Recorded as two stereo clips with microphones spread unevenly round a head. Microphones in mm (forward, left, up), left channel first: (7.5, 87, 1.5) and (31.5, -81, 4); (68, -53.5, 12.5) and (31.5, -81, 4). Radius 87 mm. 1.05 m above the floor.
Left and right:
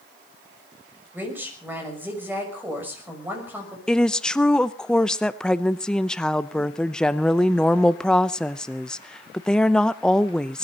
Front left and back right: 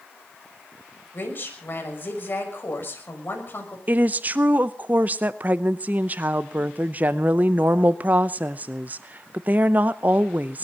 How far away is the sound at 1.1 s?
About 6 m.